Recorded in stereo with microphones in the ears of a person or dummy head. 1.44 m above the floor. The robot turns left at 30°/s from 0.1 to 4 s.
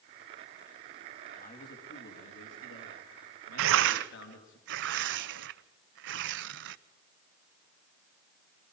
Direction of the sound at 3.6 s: 75° right (ahead or behind).